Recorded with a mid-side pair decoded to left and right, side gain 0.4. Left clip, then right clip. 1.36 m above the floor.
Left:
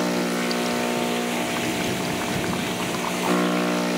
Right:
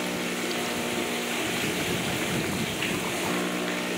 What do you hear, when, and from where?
0.0 s a machine running: 55° left